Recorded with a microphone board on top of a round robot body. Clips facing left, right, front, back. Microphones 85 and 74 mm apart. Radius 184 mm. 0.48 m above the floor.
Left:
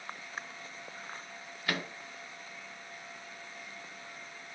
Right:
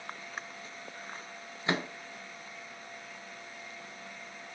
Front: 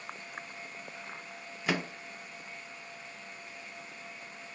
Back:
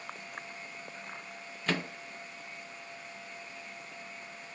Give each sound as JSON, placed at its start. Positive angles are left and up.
{"t": 1.7, "sound": "a microwave", "azimuth_deg": -70, "distance_m": 0.6}